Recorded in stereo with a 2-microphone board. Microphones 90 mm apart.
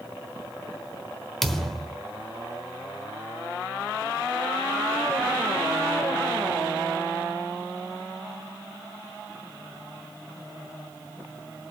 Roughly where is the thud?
Centre.